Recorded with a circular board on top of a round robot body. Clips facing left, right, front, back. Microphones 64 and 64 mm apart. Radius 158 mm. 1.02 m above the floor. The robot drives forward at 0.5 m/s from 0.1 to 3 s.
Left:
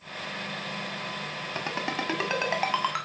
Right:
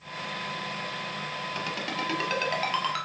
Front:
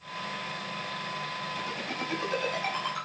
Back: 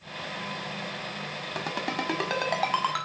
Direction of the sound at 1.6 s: 150° left.